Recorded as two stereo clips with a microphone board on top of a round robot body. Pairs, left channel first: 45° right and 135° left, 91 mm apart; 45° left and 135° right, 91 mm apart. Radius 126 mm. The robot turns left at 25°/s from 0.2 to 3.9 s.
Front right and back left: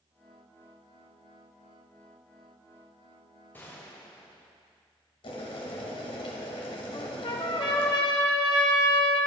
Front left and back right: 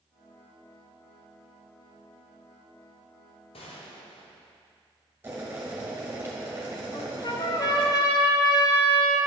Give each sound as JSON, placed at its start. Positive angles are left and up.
{"t": 3.5, "sound": "a gunshot", "azimuth_deg": 25, "distance_m": 1.2}
{"t": 5.2, "sound": "boiling", "azimuth_deg": -65, "distance_m": 1.6}
{"t": 6.9, "sound": "a trumpet", "azimuth_deg": -5, "distance_m": 0.6}